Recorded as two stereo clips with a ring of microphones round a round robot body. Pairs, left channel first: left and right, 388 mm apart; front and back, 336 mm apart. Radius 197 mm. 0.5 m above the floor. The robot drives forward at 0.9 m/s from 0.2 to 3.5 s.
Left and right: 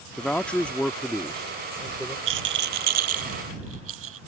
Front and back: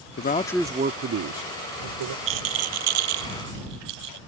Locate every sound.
0.2 s a man speaking: 5° left; by 2.2 s straight behind
2.3 s a rattle: 135° right; by 4.2 s 150° right